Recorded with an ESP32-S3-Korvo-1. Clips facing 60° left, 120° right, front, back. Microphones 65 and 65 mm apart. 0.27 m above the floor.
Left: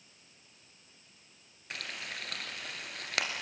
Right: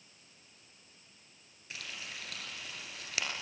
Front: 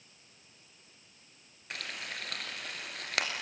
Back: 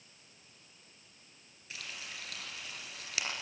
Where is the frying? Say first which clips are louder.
Left 4 dB, front 5 dB; 30° left, 3 m.